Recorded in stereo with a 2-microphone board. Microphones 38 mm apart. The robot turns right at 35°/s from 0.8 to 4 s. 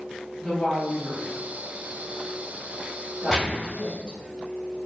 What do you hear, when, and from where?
0.4 s a woman speaking: 35° right (ahead or behind), 1.9 m; by 4.2 s 20° right (ahead or behind), 1.9 m
3.3 s a gunshot: 5° left (ahead or behind), 0.6 m; by 3.8 s 10° right (ahead or behind), 0.6 m